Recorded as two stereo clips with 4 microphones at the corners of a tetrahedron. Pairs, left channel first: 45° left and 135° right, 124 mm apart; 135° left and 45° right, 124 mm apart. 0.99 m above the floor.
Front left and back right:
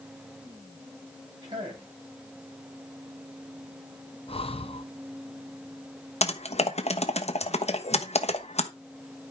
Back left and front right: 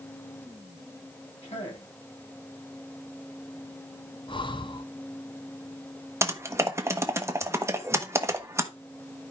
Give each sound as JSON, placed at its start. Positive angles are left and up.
{"t": 1.4, "sound": "a man speaking", "azimuth_deg": 170, "distance_m": 8.0}
{"t": 4.3, "sound": "breathing", "azimuth_deg": 85, "distance_m": 0.8}
{"t": 6.2, "sound": "typing on a keyboard", "azimuth_deg": 20, "distance_m": 1.1}